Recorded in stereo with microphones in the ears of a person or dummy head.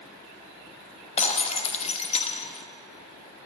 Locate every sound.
1.2 s breaking glass: 45° left (ahead or behind), 0.9 m